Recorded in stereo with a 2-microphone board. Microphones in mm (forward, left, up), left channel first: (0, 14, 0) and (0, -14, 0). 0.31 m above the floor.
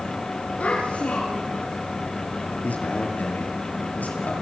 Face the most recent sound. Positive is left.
turn(degrees=70)  # may be behind; listen again after turning